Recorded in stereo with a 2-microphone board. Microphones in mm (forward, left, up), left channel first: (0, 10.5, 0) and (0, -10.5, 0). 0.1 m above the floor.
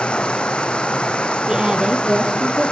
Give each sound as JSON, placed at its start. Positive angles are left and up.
{"t": 0.0, "sound": "running water", "side_deg": 75, "distance_m": 1.0}
{"t": 1.5, "sound": "a woman speaking", "side_deg": -45, "distance_m": 3.5}